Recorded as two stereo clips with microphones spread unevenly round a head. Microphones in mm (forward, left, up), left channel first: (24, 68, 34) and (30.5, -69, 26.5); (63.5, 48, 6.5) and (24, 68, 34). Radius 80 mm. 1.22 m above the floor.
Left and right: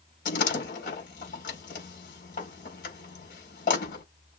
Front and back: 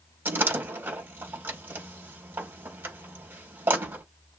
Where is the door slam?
130° left, 4 m.